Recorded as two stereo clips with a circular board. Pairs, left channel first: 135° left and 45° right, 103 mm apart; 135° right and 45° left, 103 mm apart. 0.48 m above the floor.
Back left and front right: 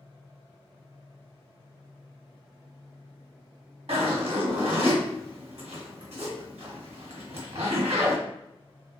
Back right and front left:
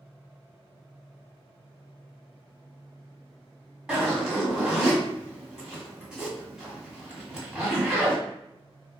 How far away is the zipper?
About 1.5 m.